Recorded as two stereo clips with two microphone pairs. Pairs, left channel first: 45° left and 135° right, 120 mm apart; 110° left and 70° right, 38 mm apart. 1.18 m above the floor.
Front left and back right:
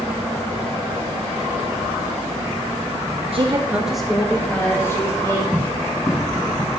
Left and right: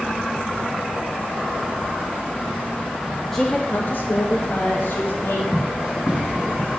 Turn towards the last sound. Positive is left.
turn(degrees=-10)